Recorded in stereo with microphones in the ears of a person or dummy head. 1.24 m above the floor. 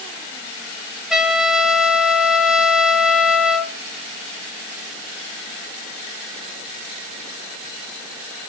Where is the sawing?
I don't hear sawing.